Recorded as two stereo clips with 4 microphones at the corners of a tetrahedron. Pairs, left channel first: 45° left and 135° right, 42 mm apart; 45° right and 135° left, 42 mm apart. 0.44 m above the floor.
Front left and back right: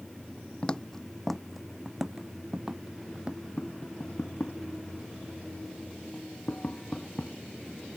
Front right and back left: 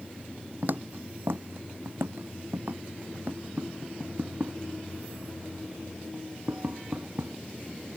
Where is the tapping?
95° left.